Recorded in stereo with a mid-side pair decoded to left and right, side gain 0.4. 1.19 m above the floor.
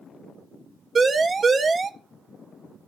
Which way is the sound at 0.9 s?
40° right.